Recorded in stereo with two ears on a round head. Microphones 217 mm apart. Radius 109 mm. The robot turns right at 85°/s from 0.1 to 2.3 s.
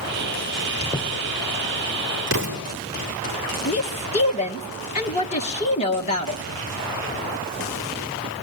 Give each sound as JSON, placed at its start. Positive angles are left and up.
{"t": 0.8, "sound": "a squeak", "side_deg": 30, "distance_m": 3.5}
{"t": 2.3, "sound": "an explosion", "side_deg": -50, "distance_m": 4.5}
{"t": 3.6, "sound": "a woman speaking", "side_deg": 25, "distance_m": 1.7}